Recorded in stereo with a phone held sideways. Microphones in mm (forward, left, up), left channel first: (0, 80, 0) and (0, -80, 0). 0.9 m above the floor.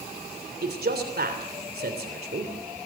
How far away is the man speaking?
About 3 m.